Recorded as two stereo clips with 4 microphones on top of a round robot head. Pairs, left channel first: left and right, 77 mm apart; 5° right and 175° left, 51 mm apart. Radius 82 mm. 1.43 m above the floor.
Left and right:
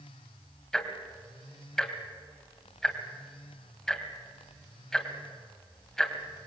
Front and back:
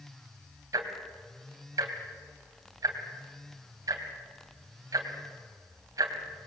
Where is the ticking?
175° left, 2.5 m.